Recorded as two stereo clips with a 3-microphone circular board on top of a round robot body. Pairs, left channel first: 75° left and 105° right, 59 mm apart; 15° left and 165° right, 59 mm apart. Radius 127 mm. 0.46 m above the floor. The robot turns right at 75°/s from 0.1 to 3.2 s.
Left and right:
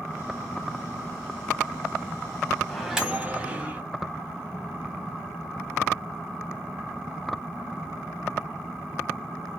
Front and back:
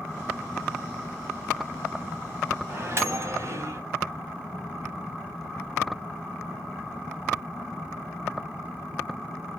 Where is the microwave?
155° left, 1.2 m; by 3.8 s 165° right, 1.2 m.